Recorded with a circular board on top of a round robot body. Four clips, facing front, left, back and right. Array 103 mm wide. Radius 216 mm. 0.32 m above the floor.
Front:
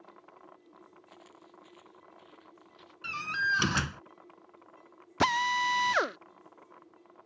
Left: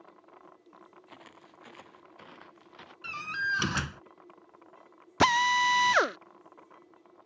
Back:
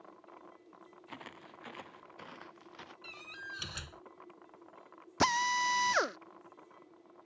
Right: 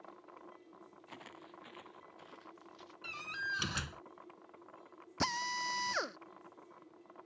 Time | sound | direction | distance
1.1 | footsteps | 175° right | ?
3.0 | a door slam | 35° left | ?
5.2 | a drill | 80° left | ?